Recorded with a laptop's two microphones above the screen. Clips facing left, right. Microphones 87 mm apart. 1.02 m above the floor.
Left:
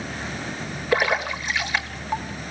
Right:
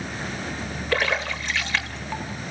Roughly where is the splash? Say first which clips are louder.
Left 3 dB; centre.